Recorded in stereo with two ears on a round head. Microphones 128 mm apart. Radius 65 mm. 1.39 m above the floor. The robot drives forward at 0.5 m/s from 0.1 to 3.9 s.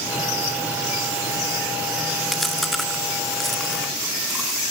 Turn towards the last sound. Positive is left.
turn(degrees=0)  # may be behind; listen again after turning